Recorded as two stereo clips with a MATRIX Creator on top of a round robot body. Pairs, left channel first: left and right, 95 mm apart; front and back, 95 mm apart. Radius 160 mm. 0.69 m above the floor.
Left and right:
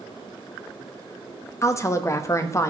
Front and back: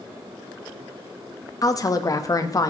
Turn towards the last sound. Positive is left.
turn(degrees=40)